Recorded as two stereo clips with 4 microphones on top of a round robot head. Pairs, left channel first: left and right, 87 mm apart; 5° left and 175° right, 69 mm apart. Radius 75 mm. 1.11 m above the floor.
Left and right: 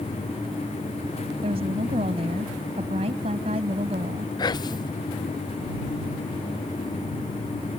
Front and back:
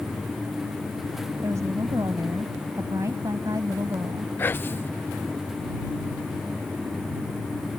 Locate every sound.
1.4 s a woman speaking: 115° right
4.4 s whispering: 60° left